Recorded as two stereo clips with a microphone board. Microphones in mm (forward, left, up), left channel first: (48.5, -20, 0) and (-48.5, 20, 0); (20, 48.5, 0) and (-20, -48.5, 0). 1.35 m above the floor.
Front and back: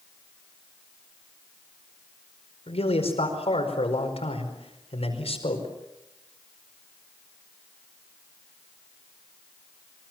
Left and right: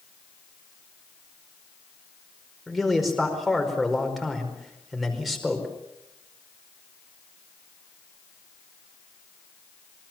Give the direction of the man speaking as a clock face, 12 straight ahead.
1 o'clock.